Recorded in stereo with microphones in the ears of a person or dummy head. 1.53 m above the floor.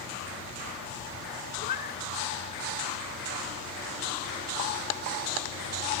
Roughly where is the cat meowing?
Left.